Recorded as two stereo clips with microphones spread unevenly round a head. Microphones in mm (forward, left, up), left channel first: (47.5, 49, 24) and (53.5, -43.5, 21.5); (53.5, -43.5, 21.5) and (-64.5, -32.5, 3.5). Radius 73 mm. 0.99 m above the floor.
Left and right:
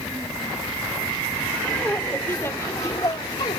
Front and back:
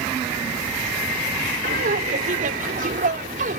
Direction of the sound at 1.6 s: 175° left.